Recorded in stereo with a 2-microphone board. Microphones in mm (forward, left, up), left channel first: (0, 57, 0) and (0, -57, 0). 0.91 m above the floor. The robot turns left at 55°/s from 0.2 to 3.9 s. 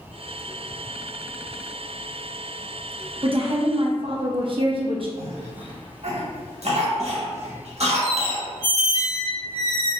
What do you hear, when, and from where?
3.2 s a woman speaking: 70° right, 0.7 m; by 5.1 s 110° right, 0.7 m
5.2 s a cough: 65° right (ahead or behind), 1.3 m
8.0 s a squeak: 40° left (ahead or behind), 1.5 m